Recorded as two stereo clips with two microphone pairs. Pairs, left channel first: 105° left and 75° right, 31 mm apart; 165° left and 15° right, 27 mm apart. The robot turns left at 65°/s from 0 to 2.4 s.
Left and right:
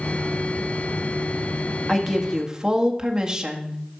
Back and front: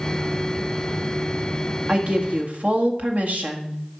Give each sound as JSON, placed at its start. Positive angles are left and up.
{"t": 1.9, "sound": "a woman speaking", "azimuth_deg": 20, "distance_m": 1.5}